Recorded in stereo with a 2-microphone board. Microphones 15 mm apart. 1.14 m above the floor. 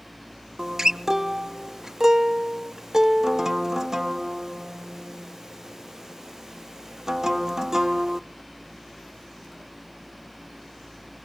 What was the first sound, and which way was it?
A guitar, 35° right (ahead or behind).